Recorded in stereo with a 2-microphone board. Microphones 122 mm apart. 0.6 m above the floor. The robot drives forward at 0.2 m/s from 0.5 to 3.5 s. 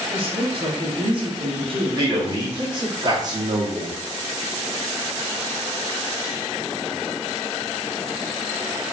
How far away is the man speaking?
About 0.8 m.